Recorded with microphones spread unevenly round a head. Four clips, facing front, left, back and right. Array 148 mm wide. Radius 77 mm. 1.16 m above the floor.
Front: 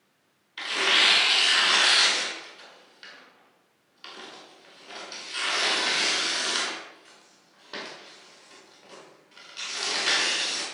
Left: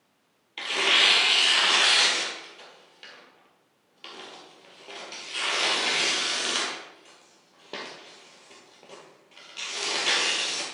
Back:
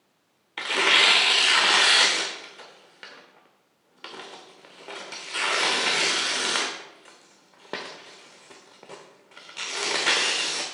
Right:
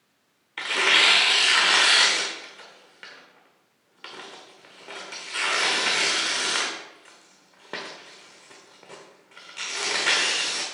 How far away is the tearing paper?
About 1.2 m.